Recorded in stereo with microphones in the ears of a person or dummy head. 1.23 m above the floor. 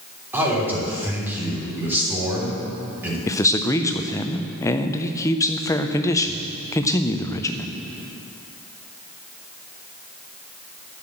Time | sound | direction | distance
0.3 | a man speaking | 15° right (ahead or behind) | 3.5 m
3.3 | a man speaking | 20° left (ahead or behind) | 0.6 m